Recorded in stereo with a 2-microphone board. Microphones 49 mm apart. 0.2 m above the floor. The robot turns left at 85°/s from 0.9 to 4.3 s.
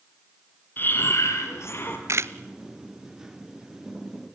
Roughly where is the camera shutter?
Right.